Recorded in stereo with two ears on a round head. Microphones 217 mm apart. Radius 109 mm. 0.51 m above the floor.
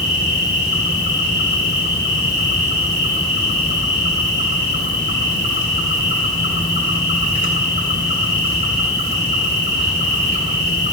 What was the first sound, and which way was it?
An insect, 45° left (ahead or behind).